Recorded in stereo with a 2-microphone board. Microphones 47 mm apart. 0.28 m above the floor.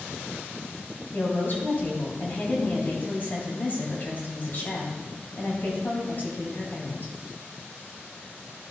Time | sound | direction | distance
1.1 | a woman speaking | 50° left (ahead or behind) | 2.5 m